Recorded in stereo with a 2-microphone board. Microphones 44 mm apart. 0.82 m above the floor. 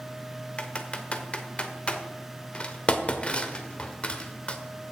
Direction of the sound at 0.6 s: 30° left (ahead or behind).